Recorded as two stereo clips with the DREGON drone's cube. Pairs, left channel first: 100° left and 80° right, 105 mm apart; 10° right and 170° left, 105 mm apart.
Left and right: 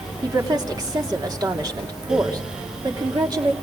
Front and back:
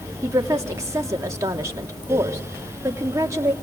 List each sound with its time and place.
0.2 s a woman speaking: 130° right, 3 m